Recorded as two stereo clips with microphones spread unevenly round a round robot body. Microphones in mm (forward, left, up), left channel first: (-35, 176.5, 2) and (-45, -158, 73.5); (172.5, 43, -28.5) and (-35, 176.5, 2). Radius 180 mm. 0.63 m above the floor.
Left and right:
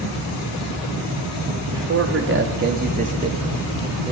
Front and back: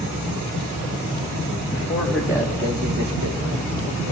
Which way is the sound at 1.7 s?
50° right.